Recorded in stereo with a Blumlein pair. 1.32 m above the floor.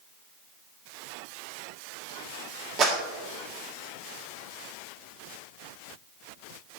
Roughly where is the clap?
Ahead right.